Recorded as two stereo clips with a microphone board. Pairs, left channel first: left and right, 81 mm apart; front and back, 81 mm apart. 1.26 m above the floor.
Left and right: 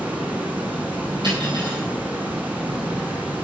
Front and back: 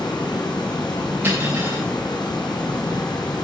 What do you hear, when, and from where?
0.0 s running water: 20° right, 3 m
1.2 s cutlery clinking: 115° right, 7.5 m